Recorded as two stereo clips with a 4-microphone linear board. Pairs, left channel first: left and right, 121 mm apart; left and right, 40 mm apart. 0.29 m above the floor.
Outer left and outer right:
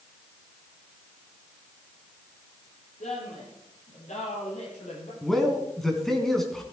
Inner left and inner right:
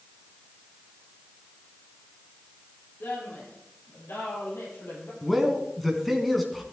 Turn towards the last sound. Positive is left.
turn(degrees=0)  # may be behind; listen again after turning